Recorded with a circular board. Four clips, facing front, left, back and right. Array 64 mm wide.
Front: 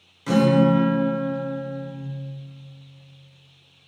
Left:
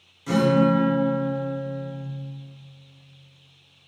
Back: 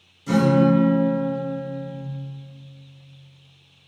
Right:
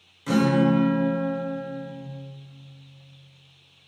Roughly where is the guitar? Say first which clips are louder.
Left 1 dB, even; ahead.